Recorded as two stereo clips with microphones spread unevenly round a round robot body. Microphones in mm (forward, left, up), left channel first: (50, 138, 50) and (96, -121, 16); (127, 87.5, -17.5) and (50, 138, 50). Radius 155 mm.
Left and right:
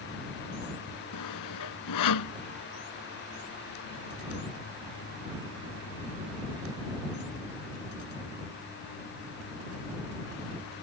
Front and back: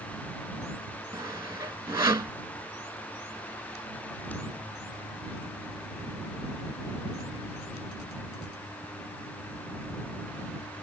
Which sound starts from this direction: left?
Sawing, at 1.1 s.